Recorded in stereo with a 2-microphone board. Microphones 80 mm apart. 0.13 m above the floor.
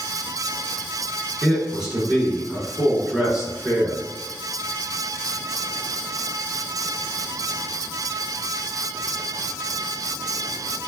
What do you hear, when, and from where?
1.4 s a man speaking: 5° right (ahead or behind), 1.9 m